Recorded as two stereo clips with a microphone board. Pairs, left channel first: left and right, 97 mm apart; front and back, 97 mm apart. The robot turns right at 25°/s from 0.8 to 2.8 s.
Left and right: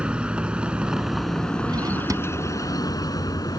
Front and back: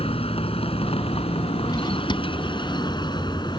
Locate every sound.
0.0 s a vehicle: 10° right; by 3.6 s 40° left
1.7 s a drawer: 45° right; by 3.6 s 20° right